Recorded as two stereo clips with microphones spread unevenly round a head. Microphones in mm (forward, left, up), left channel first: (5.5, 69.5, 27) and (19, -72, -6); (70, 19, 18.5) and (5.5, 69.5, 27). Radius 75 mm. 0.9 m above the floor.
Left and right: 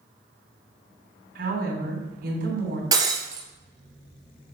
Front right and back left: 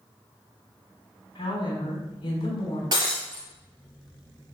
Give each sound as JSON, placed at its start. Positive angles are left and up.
{"t": 1.4, "sound": "a woman speaking", "azimuth_deg": -85, "distance_m": 3.5}
{"t": 2.9, "sound": "breaking glass", "azimuth_deg": -155, "distance_m": 2.0}